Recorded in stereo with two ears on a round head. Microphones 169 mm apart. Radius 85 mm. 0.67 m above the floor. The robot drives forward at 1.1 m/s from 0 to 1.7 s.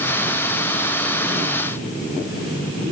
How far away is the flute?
No flute in this recording.